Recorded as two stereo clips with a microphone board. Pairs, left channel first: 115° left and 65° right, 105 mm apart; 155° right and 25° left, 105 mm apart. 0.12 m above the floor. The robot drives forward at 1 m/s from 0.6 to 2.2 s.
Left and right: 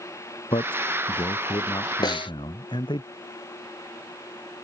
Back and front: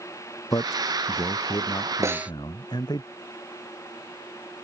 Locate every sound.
0.5 s a man speaking: 145° left; by 3.0 s 155° left
2.0 s a snare drum: 75° left; by 2.3 s 95° left